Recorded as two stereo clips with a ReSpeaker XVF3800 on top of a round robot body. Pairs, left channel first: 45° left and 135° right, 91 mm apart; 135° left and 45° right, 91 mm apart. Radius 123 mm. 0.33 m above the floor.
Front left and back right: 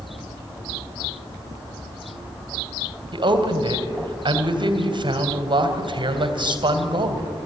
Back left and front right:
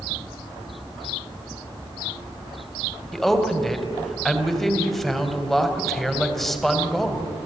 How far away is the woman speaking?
About 2.5 m.